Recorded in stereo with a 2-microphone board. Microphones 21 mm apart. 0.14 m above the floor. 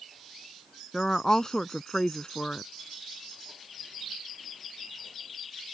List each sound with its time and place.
0.9 s a woman speaking: 30° left (ahead or behind)